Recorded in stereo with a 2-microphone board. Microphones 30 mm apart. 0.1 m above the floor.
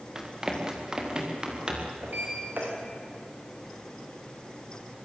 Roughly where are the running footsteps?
Right.